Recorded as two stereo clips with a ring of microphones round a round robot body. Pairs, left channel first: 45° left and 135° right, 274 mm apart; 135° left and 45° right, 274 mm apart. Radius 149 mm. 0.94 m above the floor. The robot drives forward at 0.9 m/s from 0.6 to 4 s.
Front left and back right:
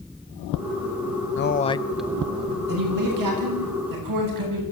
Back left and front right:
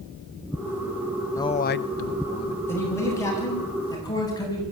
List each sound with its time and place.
1.4 s a man speaking: 60° left, 0.6 m; by 2.6 s 160° left, 1.1 m
2.7 s a man speaking: 145° right, 7.5 m; by 4.6 s 150° right, 8.5 m